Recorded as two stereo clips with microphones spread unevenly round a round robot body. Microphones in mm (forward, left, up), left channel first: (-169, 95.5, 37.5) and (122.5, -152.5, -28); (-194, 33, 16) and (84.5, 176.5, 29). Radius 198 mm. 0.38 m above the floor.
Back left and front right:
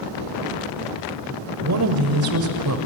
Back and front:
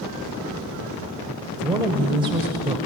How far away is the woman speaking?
About 1.9 m.